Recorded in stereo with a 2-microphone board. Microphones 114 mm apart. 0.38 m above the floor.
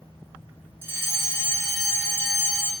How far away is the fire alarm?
About 1.8 m.